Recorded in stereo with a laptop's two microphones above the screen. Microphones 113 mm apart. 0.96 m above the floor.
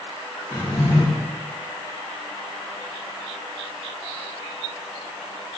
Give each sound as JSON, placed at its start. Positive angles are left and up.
{"t": 0.5, "sound": "a drawer", "side_deg": 0, "distance_m": 1.6}